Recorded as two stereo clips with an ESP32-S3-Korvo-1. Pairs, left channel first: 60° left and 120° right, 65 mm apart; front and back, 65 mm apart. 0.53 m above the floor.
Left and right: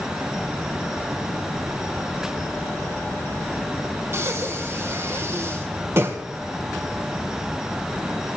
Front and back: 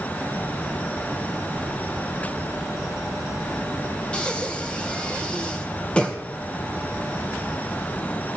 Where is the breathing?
75° right, 2.5 m.